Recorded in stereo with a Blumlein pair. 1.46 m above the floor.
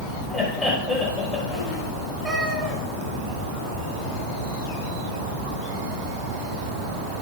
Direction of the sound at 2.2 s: 5° right.